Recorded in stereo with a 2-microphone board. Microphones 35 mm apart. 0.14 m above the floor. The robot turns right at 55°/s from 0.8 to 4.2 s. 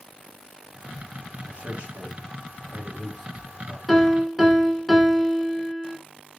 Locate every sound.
1.5 s a man speaking: 30° right (ahead or behind), 1.2 m; by 3.8 s 10° left (ahead or behind), 1.2 m
3.9 s a piano: centre (ahead or behind), 0.9 m; by 6.0 s 10° right (ahead or behind), 0.9 m